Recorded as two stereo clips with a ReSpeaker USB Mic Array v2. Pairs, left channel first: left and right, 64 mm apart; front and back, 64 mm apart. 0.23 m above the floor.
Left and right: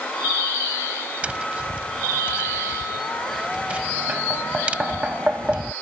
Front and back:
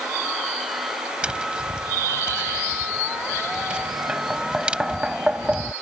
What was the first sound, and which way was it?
Tapping, 125° right.